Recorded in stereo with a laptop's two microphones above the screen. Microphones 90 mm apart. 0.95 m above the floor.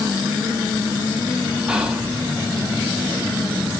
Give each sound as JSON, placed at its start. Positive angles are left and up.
{"t": 1.7, "sound": "whispering", "side_deg": -10, "distance_m": 0.5}